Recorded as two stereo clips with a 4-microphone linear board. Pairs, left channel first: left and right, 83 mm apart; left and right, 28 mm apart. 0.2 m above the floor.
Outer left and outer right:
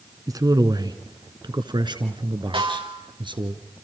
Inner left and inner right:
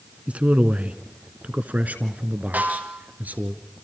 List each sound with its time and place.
0.3 s a man speaking: 45° right (ahead or behind), 2 m; by 3.5 s 70° right (ahead or behind), 3 m
2.5 s a snare drum: 80° right, 7 m